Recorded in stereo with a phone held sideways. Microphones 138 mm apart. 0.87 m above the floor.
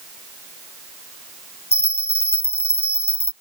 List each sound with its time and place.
1.7 s a bell: 50° left (ahead or behind)